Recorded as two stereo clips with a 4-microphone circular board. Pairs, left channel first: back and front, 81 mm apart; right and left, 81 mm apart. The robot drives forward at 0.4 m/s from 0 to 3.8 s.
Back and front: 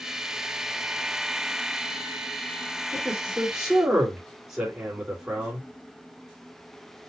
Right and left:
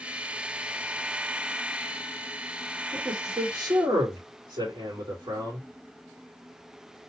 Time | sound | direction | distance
2.9 | a man speaking | 75° left | 2.5 m